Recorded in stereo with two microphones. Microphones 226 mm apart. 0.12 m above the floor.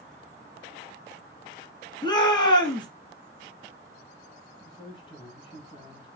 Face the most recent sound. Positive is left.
turn(degrees=20)  # may be behind; listen again after turning